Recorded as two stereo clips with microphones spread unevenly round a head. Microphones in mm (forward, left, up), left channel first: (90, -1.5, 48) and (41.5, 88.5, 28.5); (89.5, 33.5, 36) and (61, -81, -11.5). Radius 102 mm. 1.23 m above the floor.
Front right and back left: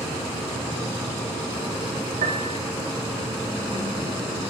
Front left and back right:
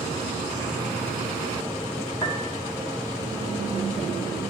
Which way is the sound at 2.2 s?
145° left.